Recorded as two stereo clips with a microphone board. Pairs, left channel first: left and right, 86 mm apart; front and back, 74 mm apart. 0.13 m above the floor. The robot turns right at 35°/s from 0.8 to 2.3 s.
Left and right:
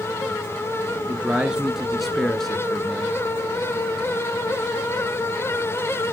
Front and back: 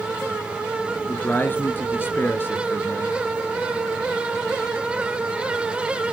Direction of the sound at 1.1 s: 35° right.